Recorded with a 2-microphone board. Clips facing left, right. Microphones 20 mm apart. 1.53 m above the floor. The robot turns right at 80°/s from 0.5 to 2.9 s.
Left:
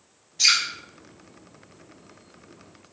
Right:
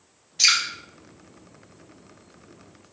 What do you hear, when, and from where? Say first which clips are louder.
0.4 s dripping: even; 25° right (ahead or behind), 1.2 m; by 0.6 s 20° right (ahead or behind), 1.2 m